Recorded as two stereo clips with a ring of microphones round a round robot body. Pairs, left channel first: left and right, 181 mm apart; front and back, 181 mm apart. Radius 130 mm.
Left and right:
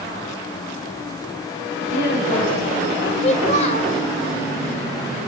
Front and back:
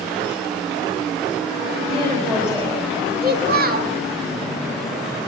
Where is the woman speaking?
120° left, 5 m; by 2.8 s 110° left, 4.5 m.